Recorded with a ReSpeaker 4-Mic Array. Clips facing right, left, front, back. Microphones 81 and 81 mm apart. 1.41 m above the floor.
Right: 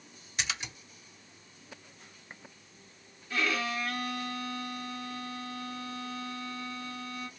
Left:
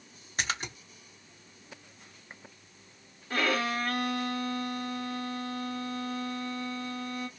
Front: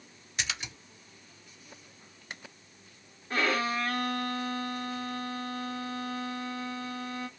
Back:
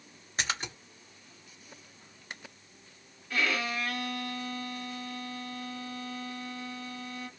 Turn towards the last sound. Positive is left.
turn(degrees=50)